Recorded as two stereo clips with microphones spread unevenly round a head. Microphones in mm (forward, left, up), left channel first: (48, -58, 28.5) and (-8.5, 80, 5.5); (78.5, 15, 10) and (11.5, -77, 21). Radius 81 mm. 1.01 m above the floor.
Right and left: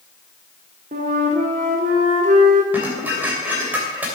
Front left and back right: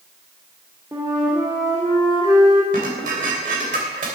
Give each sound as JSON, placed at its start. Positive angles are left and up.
{"t": 0.9, "sound": "a flute", "azimuth_deg": 160, "distance_m": 1.8}
{"t": 2.7, "sound": "dishes clattering", "azimuth_deg": -165, "distance_m": 2.5}